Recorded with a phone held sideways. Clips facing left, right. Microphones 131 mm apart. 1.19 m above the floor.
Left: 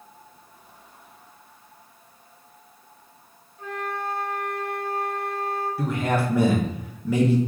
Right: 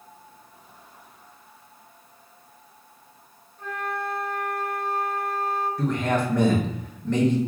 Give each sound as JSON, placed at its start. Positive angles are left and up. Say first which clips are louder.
{"t": 3.6, "sound": "a flute", "louder": "even", "side_deg": 0, "distance_m": 1.8}
{"t": 5.8, "sound": "a man speaking", "louder": "even", "side_deg": 5, "distance_m": 0.6}